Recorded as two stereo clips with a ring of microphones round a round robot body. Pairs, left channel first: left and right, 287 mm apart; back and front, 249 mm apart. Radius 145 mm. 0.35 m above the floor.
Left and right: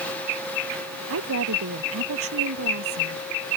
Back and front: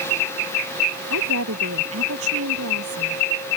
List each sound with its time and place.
1.1 s a woman speaking: 45° right